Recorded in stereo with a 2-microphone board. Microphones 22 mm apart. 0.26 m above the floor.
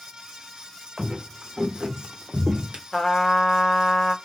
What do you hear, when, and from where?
1.0 s footsteps: 30° right (ahead or behind), 1.1 m; by 2.8 s 60° right (ahead or behind), 0.6 m
2.9 s a trumpet: 30° left (ahead or behind), 0.6 m